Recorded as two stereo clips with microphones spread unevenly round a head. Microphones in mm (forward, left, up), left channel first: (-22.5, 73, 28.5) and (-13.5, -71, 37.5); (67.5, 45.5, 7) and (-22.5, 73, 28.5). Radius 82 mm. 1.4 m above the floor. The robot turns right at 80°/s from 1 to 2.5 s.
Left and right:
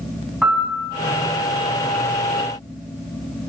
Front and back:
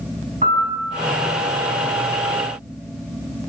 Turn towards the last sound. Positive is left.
turn(degrees=-55)